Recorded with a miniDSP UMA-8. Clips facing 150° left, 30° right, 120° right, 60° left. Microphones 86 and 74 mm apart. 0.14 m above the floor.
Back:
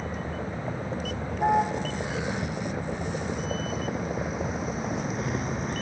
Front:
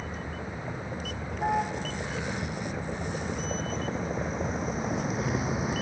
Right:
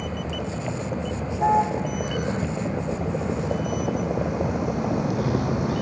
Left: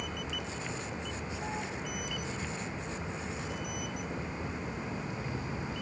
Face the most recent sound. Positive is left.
turn(degrees=-115)